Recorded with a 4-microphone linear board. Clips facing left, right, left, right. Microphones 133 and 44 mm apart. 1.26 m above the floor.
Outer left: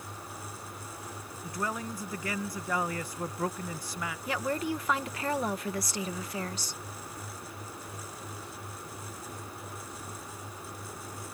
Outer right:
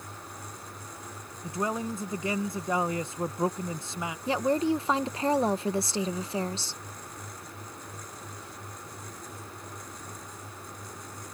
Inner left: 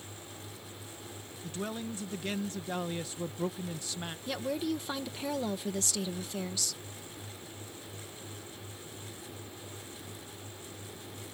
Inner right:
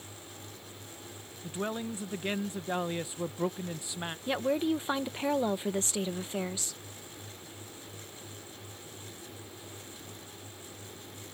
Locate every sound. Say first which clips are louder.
1.4 s a man speaking: outer right 4 dB, inner right 3 dB; 20° right (ahead or behind)
4.3 s a woman speaking: outer right 7 dB, inner right 5 dB; 30° right (ahead or behind)